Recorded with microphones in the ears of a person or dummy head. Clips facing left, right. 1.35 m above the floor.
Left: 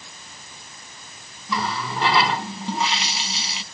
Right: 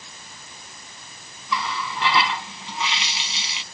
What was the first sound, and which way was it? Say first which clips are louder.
A running tap: left 2 dB; 40° left (ahead or behind).